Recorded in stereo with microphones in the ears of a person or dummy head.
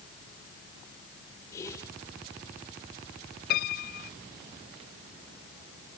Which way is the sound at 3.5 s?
50° left (ahead or behind).